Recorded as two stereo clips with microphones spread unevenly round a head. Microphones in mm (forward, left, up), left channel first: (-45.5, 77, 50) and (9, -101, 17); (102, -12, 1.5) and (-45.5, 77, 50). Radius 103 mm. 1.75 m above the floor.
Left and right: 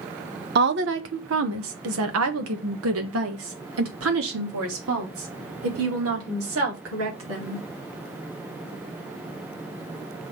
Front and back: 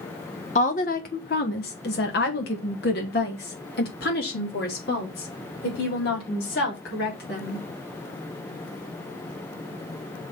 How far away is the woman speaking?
About 0.7 m.